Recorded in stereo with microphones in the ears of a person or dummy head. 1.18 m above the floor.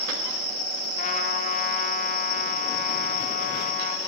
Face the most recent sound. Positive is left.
turn(degrees=45)  # may be behind; listen again after turning